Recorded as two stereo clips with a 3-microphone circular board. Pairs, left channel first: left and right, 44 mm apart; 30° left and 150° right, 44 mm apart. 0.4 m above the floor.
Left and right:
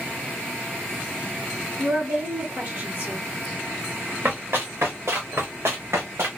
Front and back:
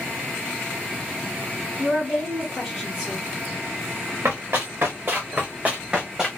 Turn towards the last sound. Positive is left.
turn(degrees=-70)